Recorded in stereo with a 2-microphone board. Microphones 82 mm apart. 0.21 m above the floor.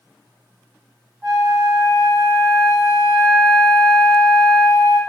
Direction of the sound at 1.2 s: 5° left (ahead or behind).